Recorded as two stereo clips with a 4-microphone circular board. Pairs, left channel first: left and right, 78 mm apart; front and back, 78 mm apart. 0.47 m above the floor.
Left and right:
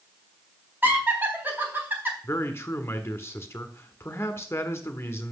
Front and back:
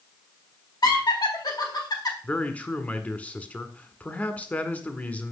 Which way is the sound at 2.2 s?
55° left.